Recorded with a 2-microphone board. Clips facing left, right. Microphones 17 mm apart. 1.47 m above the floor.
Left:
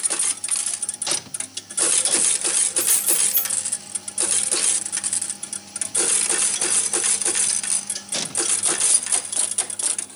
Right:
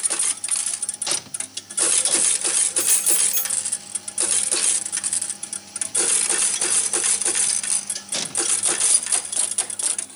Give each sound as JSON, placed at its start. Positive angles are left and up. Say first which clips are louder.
{"t": 2.8, "sound": "keys jangling", "louder": "right 2 dB", "side_deg": -75, "distance_m": 4.5}